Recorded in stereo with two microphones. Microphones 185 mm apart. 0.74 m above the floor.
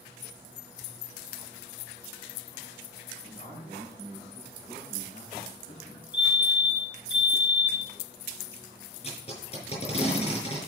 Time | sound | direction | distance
3.2 | a man speaking | 60° right (ahead or behind) | 5 m
6.1 | a fire alarm | 10° right (ahead or behind) | 7 m
9.0 | tape being pulled | 30° left (ahead or behind) | 5.5 m